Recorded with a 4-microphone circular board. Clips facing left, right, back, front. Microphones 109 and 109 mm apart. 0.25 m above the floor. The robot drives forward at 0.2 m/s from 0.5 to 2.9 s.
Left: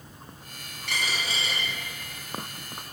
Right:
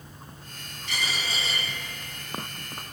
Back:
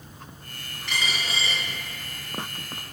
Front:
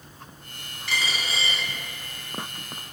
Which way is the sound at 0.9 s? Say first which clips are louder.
Left 1 dB, even; 85° left.